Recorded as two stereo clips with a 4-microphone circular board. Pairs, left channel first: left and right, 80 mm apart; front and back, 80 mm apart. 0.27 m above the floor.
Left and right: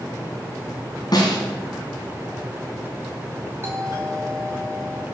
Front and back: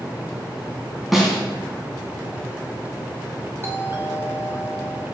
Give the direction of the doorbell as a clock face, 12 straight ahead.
5 o'clock.